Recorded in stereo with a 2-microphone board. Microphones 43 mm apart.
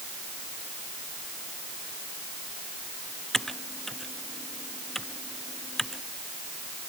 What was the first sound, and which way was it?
Typing on a keyboard, 10° left (ahead or behind).